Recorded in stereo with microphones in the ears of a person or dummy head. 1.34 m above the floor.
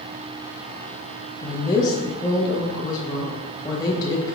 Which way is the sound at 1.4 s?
20° left (ahead or behind).